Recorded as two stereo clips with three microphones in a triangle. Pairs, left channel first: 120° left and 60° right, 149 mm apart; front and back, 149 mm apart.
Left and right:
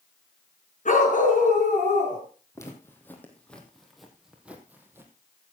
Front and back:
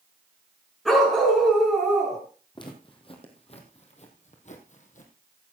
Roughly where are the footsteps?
Ahead left.